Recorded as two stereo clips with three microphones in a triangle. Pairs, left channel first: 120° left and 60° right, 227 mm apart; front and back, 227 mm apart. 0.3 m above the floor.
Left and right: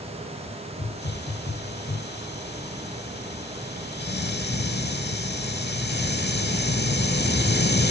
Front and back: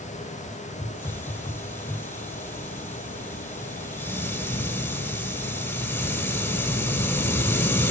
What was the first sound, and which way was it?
A hiss, 80° left.